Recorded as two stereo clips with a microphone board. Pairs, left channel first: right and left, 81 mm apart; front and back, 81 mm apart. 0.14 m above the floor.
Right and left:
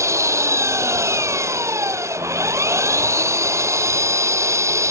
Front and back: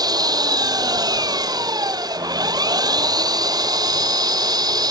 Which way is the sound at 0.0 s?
145° left.